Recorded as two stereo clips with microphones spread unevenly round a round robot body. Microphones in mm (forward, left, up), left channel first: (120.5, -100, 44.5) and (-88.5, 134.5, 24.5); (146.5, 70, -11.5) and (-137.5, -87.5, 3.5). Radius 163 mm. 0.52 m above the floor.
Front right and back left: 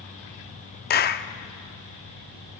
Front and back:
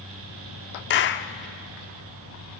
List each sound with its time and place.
0.9 s a clap: straight ahead, 0.7 m